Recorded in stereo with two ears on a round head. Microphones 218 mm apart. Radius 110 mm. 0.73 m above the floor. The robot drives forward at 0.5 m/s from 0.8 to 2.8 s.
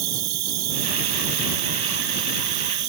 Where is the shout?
No shout in this recording.